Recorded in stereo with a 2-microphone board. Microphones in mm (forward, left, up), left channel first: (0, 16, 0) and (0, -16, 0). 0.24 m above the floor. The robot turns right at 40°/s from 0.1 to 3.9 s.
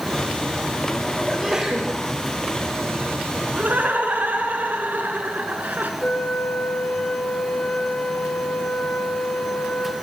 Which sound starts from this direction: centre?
A sneeze, at 1.3 s.